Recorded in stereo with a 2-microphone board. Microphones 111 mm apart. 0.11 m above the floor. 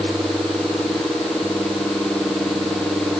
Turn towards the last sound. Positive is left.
No sound to turn to.